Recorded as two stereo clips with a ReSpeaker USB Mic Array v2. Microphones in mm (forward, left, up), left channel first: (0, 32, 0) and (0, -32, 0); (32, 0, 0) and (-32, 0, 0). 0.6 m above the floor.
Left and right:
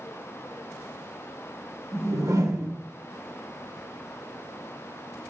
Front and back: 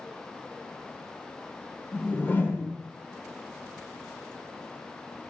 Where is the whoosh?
60° right, 1.2 m.